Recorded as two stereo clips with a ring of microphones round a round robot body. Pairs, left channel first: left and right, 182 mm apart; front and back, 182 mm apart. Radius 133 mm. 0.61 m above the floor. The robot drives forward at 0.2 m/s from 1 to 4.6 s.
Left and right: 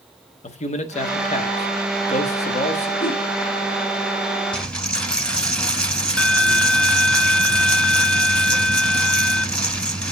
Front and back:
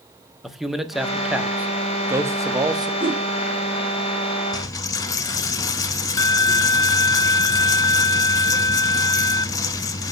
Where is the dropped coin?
15° left, 0.5 m.